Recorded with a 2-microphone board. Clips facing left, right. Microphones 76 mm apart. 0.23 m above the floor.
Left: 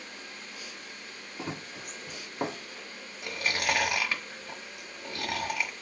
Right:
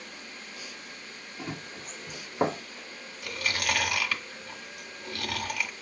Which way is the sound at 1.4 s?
25° left (ahead or behind).